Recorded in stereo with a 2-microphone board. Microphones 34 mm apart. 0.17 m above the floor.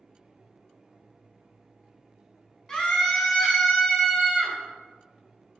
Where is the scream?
20° left (ahead or behind), 1.2 m; by 4.5 s 10° left (ahead or behind), 1.8 m.